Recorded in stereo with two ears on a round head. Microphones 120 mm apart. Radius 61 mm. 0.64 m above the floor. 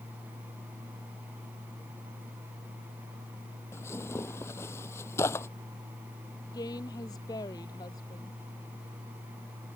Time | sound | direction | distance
3.7 | tearing paper | 20° left (ahead or behind) | ?
6.5 | a woman speaking | 25° left (ahead or behind) | ?